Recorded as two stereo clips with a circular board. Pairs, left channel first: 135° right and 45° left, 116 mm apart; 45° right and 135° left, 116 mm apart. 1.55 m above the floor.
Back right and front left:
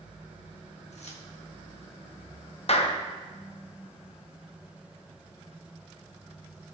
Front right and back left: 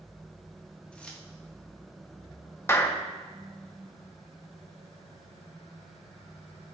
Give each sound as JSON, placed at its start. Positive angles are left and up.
{"t": 0.9, "sound": "keys jangling", "azimuth_deg": -125, "distance_m": 1.5}
{"t": 2.7, "sound": "a clap", "azimuth_deg": -110, "distance_m": 0.9}